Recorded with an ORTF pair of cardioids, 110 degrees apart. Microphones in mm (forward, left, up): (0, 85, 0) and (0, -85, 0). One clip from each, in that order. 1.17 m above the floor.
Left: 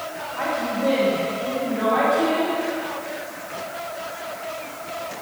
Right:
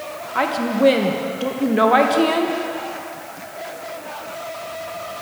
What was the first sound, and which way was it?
A woman speaking, 70° right.